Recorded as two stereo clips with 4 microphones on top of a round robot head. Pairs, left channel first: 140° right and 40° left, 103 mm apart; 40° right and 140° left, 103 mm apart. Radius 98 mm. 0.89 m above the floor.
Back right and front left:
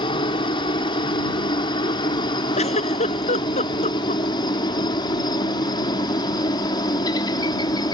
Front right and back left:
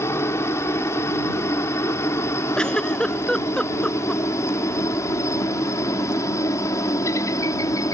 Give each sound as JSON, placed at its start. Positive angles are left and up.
{"t": 0.0, "sound": "a helicopter", "azimuth_deg": -105}
{"t": 2.6, "sound": "a giggle", "azimuth_deg": -120}